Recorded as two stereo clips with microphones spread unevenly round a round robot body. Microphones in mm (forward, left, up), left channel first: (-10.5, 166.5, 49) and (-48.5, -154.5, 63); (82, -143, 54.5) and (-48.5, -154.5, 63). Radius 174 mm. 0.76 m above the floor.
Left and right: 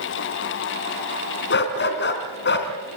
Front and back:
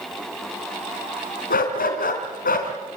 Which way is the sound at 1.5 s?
25° left.